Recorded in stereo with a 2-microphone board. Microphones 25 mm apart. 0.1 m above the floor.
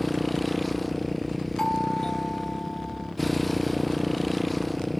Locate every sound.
0.0 s a motorcycle: 5° left (ahead or behind)
1.6 s a doorbell: 25° left (ahead or behind)